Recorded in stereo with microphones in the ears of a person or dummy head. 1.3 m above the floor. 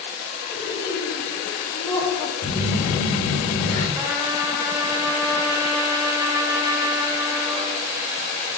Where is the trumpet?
20° right (ahead or behind), 1.1 m.